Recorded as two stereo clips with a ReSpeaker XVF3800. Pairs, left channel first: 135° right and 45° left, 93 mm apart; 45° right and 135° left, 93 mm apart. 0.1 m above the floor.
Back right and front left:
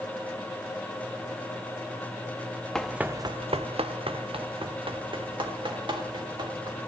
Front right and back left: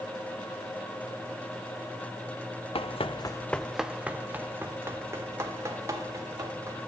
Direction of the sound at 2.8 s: 50° right.